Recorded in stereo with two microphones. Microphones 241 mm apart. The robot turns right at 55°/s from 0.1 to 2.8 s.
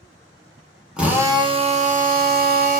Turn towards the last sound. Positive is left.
turn(degrees=-75)